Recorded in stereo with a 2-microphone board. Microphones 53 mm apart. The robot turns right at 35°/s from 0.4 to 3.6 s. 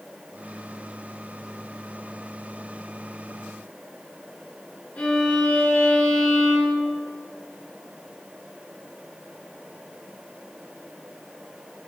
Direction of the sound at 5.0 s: 25° left (ahead or behind).